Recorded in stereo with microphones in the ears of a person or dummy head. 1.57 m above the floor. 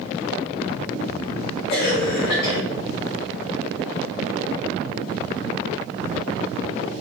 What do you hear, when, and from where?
1.7 s a cough: 55° left (ahead or behind), 1.9 m